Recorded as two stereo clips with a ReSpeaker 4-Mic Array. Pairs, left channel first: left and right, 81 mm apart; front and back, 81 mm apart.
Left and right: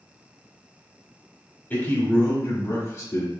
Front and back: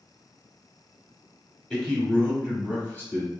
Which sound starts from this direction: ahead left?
A man speaking, at 1.7 s.